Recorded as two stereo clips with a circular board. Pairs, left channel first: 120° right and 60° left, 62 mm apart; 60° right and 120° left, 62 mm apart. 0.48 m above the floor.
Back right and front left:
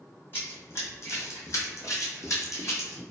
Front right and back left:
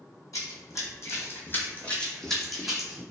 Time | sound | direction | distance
0.3 | running footsteps | 70° right | 1.1 m